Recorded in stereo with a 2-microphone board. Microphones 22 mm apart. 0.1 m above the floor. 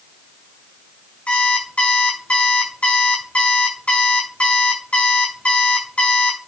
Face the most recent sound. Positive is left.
turn(degrees=70)  # may be behind; listen again after turning